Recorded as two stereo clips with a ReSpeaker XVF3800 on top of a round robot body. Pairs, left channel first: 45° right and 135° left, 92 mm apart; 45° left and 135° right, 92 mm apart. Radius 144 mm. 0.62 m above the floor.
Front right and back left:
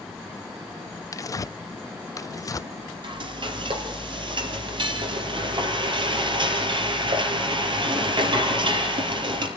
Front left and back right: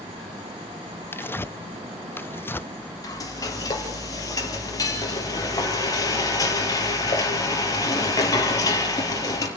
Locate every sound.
1.1 s tearing paper: 10° right, 0.5 m
3.0 s frying: 100° left, 3.5 m